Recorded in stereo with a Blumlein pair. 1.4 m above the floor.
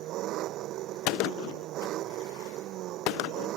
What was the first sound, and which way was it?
An engine running, 35° right.